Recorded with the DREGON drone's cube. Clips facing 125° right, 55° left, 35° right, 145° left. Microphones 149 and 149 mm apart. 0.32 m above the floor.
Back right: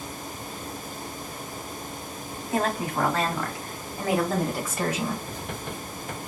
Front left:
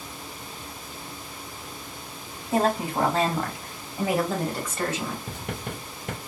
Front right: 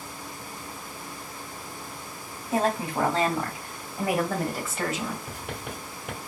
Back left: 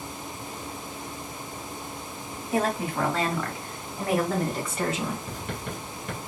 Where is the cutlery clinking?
I don't hear cutlery clinking.